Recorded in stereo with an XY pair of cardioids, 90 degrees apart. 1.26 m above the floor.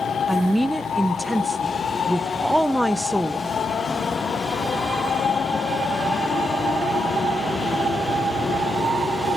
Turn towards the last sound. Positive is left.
turn(degrees=-5)